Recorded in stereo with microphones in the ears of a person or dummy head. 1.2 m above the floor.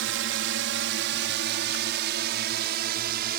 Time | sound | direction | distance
0.0 | a drone | 60° right (ahead or behind) | ?